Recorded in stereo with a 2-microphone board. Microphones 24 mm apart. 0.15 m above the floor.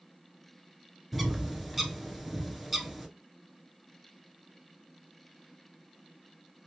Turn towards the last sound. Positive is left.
turn(degrees=-5)  # may be behind; listen again after turning